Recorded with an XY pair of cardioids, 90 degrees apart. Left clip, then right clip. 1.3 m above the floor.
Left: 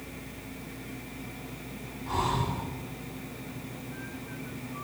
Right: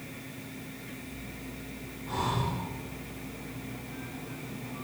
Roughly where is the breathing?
Ahead left.